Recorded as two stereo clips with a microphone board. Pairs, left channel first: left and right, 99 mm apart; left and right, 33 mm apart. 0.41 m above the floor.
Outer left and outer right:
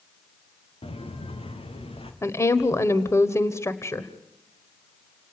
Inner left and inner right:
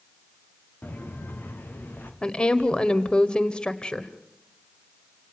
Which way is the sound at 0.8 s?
80° left.